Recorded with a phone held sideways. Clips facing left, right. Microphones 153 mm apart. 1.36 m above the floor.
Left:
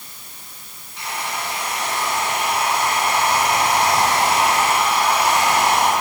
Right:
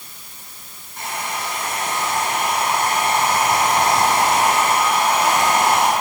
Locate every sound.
1.0 s a hair dryer: 50° right (ahead or behind), 9.5 m